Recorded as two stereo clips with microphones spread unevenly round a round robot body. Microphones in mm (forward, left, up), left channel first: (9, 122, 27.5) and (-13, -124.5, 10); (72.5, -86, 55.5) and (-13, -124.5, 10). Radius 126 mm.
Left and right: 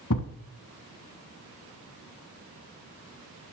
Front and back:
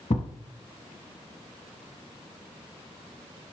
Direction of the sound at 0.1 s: 45° left.